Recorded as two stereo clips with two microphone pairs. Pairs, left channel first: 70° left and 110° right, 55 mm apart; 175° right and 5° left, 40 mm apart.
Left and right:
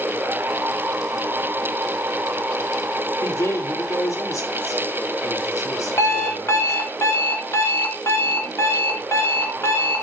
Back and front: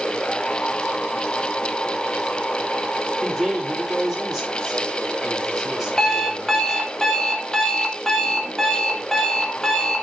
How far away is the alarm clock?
About 2.5 m.